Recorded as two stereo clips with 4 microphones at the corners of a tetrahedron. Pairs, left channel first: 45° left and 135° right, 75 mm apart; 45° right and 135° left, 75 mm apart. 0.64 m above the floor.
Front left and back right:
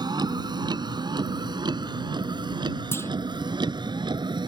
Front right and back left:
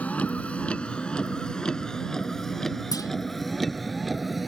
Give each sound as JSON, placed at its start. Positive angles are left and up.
{"t": 0.0, "sound": "a vehicle", "azimuth_deg": -115}
{"t": 2.9, "sound": "a clunk", "azimuth_deg": -10}